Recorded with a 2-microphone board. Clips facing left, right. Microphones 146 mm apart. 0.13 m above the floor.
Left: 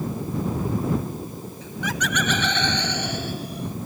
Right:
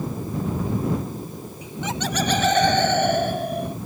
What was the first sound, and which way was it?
Laughter, 15° right (ahead or behind).